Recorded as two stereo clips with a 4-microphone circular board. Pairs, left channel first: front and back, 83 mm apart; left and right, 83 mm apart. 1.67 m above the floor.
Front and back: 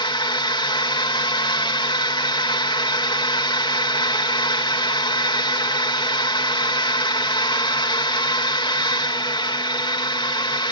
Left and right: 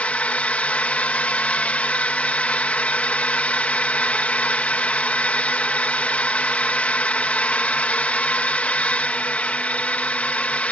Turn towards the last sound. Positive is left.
turn(degrees=15)